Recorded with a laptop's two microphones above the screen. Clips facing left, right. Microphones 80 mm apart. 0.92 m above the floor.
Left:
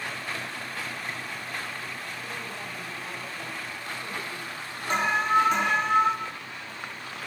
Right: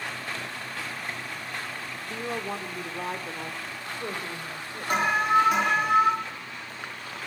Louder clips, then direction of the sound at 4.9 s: Right 1 dB; 10° right (ahead or behind).